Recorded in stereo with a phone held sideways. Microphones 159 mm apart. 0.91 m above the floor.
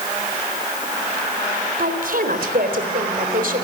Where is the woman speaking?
65° right (ahead or behind), 4 m.